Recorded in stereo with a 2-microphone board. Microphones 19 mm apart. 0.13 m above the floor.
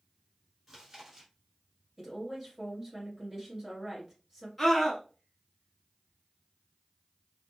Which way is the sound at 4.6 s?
5° left (ahead or behind).